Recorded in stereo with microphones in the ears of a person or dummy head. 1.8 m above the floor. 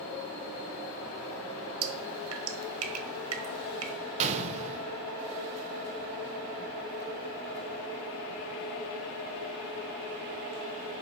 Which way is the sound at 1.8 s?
80° right.